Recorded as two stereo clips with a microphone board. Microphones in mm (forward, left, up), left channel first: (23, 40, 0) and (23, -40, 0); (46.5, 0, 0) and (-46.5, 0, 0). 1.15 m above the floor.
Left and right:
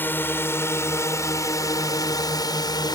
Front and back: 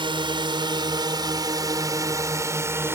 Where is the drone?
155° left; by 3.0 s 115° left.